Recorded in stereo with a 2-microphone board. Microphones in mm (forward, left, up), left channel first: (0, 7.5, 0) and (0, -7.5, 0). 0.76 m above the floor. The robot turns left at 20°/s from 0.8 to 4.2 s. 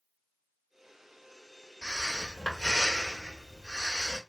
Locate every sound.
1.8 s breathing: 110° left, 1.7 m; by 4.2 s 65° left, 1.7 m